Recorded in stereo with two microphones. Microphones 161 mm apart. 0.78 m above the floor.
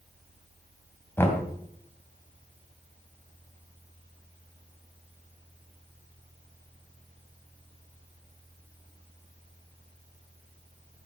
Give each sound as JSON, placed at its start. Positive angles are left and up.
{"t": 1.2, "sound": "knocking", "side_deg": 15, "distance_m": 3.0}